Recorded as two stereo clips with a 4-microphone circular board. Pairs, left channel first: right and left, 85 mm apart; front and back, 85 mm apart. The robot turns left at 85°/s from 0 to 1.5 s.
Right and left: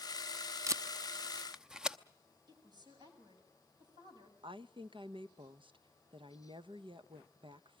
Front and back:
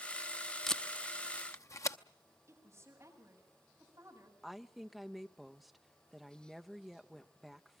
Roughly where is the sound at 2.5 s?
Behind left.